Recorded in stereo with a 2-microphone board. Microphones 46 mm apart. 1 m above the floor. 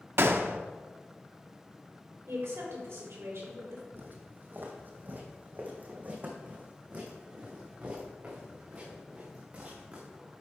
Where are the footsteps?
50° right (ahead or behind), 2.0 m; by 10.3 s 25° right (ahead or behind), 5 m.